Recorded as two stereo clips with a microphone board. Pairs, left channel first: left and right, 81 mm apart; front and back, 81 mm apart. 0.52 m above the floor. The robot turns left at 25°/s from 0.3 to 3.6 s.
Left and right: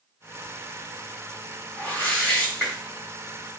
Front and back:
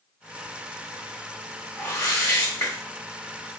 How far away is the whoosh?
About 1.4 m.